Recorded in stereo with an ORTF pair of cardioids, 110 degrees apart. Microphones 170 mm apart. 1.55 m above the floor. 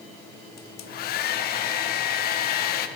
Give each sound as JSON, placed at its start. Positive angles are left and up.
{"t": 0.6, "sound": "a hair dryer", "azimuth_deg": 65, "distance_m": 0.7}